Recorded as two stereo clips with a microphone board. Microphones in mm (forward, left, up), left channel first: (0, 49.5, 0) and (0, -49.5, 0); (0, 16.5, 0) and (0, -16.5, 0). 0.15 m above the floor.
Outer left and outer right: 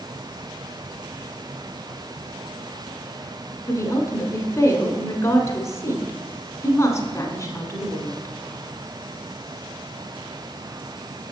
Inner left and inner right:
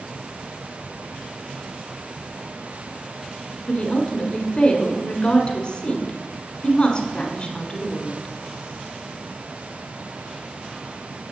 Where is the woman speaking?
30° left (ahead or behind), 1.1 m.